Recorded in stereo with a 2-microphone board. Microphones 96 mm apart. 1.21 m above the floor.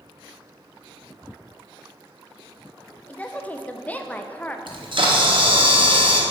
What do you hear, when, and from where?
3.1 s a woman speaking: 15° left (ahead or behind), 0.5 m
4.7 s a camera shutter: 60° right (ahead or behind), 1.1 m